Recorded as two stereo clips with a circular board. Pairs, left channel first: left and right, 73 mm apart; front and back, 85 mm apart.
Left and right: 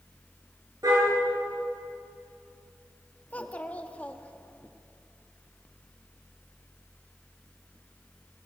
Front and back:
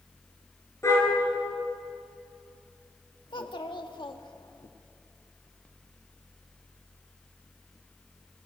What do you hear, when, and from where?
0.8 s a car horn: 55° right, 9 m
3.3 s a child speaking: 20° left, 1.6 m